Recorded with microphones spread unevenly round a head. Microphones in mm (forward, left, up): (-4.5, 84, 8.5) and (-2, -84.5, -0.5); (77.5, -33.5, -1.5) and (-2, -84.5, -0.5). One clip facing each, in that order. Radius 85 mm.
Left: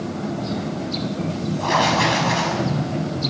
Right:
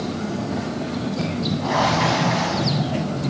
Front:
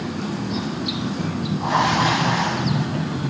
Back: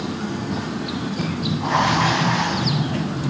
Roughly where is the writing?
Behind left.